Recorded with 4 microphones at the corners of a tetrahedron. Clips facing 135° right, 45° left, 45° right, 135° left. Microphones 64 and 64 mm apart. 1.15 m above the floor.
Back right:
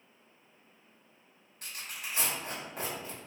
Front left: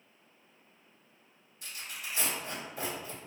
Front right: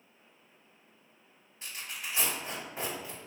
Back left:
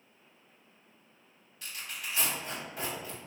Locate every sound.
1.6 s tearing paper: 105° right, 1.9 m